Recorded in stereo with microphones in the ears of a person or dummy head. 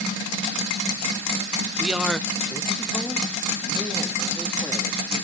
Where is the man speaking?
5° right (ahead or behind), 0.6 m; by 5.2 s 5° left (ahead or behind), 3.5 m.